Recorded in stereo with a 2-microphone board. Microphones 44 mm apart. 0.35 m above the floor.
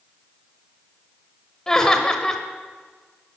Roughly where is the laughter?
Centre.